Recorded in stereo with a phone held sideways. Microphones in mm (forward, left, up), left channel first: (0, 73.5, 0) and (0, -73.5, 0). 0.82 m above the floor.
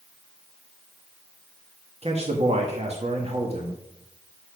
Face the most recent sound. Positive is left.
turn(degrees=-50)  # may be behind; listen again after turning